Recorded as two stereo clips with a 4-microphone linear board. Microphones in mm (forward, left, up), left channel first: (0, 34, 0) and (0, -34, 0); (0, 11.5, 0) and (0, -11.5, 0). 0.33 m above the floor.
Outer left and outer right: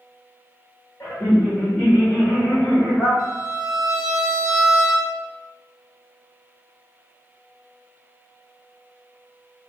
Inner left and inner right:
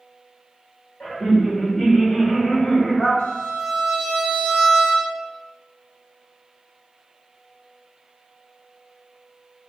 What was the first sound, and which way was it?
Laughter, 35° left (ahead or behind).